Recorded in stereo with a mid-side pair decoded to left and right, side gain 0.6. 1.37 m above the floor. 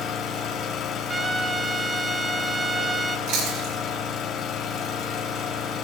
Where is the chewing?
70° right, 7 m.